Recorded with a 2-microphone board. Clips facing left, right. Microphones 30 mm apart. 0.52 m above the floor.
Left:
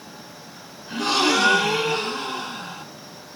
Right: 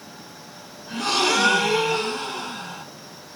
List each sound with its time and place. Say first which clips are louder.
0.9 s a gasp: left 1 dB; 15° left (ahead or behind), 0.8 m